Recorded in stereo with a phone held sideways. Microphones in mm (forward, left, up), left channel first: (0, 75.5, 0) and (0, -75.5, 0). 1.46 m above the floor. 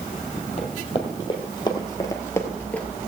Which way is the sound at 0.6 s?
40° left (ahead or behind).